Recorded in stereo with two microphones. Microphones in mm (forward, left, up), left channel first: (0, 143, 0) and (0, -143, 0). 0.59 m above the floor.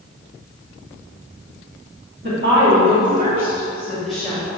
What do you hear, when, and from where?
2.2 s a woman speaking: 40° right (ahead or behind), 1.7 m; by 4.4 s 10° left (ahead or behind), 1.1 m